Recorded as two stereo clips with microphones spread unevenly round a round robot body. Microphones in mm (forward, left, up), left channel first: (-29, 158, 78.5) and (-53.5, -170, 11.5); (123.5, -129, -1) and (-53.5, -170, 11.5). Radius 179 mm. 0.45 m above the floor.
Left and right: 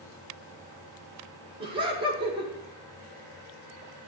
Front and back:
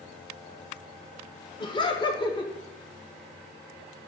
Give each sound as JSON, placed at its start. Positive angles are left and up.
{"t": 1.6, "sound": "laughter", "azimuth_deg": -35, "distance_m": 1.4}